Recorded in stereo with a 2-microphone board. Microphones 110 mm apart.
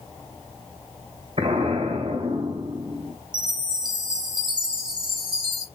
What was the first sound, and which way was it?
An explosion, 60° right (ahead or behind).